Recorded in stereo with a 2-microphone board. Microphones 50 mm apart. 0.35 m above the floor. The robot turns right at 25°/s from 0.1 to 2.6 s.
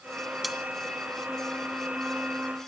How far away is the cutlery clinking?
About 0.8 m.